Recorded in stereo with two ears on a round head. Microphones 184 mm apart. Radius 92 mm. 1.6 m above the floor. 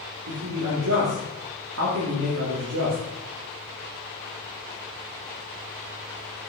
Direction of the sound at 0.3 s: 85° right.